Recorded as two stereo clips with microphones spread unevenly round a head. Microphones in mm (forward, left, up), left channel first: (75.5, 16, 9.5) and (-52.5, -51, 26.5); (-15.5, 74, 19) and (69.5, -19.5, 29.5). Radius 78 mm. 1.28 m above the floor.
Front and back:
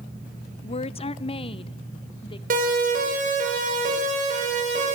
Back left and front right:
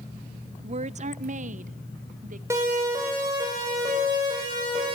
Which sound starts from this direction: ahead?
A woman speaking, at 0.6 s.